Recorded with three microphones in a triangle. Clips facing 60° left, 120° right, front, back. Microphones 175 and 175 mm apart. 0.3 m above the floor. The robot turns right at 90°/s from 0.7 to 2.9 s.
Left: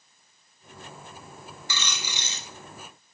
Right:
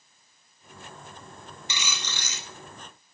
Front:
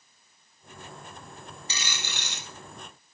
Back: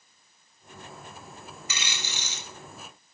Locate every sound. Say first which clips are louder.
1.7 s a dropped coin: left 1 dB, even; 55° right, 0.7 m; by 2.5 s 15° left, 0.7 m